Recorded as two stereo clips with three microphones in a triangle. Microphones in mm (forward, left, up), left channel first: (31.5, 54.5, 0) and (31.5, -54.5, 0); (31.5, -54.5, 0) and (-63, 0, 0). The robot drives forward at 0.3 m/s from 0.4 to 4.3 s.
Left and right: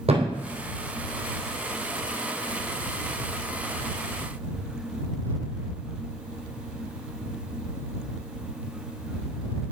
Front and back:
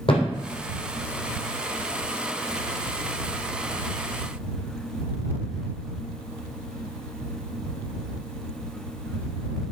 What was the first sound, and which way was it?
A thud, 65° right.